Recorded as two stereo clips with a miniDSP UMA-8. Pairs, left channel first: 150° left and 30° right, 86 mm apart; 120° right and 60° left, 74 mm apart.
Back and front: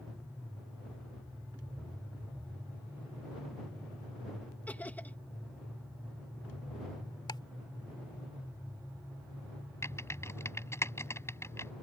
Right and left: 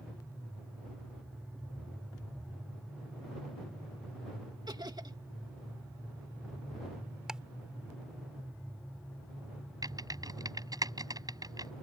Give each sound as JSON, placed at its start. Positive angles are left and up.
{"t": 4.7, "sound": "laughter", "azimuth_deg": 80}
{"t": 7.3, "sound": "ticking", "azimuth_deg": 140}
{"t": 9.8, "sound": "typing on a keyboard", "azimuth_deg": 90}